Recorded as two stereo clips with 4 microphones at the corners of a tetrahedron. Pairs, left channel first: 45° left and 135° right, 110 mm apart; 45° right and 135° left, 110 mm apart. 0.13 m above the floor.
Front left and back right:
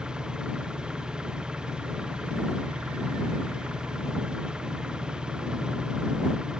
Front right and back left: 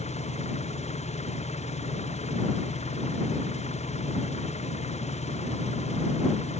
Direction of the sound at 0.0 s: 50° right.